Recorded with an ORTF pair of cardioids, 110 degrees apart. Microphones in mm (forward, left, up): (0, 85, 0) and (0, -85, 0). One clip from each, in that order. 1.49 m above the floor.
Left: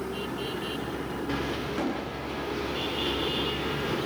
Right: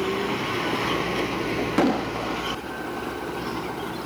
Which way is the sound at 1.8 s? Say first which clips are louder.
Right 8 dB; 60° right.